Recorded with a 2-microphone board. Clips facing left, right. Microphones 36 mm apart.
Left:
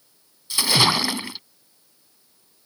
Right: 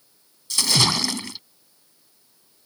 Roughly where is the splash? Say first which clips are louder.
Left 2 dB; centre.